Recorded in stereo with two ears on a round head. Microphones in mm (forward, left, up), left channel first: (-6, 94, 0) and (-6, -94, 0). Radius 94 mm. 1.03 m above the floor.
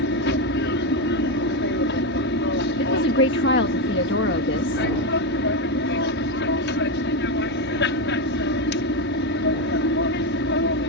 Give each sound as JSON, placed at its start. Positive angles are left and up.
{"t": 0.0, "sound": "an aircraft", "side_deg": 60}
{"t": 2.8, "sound": "a woman speaking", "side_deg": 55}